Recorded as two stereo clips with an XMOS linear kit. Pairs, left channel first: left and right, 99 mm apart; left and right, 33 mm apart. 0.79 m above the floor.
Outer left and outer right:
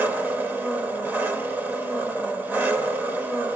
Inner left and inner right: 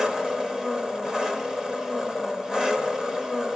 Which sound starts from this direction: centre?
An engine running, at 0.0 s.